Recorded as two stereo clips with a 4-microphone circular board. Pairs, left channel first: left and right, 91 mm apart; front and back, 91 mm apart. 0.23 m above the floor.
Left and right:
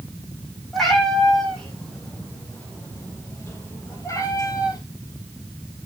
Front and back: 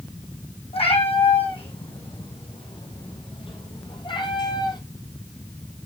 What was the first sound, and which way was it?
A cat meowing, straight ahead.